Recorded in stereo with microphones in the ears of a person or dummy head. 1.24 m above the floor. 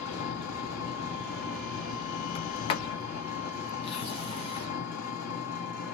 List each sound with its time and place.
0.0 s an engine running: 50° left (ahead or behind), 1.7 m
2.4 s a sliding door: 35° left (ahead or behind), 0.6 m